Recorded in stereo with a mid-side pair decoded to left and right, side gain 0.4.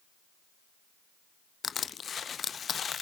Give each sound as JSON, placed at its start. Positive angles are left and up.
{"t": 1.6, "sound": "crushing", "azimuth_deg": 50, "distance_m": 0.7}